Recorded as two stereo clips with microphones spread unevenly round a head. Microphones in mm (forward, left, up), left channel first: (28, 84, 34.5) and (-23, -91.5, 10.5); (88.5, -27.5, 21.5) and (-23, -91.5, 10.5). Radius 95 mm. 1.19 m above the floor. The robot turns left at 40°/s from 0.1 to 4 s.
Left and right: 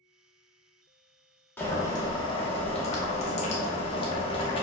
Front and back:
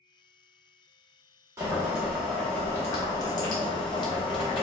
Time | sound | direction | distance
1.6 | boiling | 140° left | 0.8 m